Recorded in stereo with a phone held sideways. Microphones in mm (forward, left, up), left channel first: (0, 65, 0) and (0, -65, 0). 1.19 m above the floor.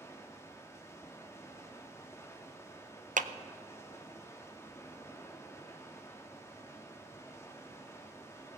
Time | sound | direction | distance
0.0 | running water | 20° left (ahead or behind) | 1.2 m
3.2 | a clap | 80° right | 0.5 m